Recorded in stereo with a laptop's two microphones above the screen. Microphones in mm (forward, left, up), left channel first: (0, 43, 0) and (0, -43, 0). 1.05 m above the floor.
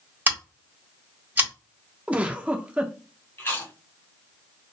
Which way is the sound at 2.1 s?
15° right (ahead or behind).